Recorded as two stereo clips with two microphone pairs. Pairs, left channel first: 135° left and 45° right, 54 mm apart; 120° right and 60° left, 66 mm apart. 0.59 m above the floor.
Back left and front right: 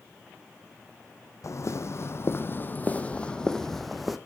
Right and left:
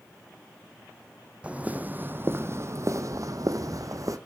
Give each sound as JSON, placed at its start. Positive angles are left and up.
{"t": 1.4, "sound": "footsteps", "azimuth_deg": 130, "distance_m": 1.2}